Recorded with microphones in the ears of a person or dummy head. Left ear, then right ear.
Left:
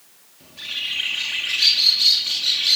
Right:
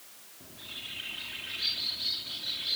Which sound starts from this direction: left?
A bird, at 0.4 s.